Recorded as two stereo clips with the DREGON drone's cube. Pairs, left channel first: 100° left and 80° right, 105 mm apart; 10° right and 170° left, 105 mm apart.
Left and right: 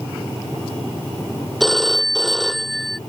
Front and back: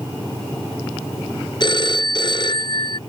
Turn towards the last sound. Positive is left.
turn(degrees=15)